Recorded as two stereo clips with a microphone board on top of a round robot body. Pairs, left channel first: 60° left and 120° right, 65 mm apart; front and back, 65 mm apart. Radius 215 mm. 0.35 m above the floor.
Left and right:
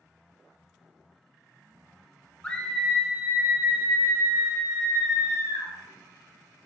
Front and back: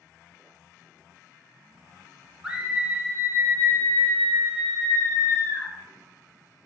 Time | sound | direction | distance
2.4 | a scream | 115° left | 1.1 m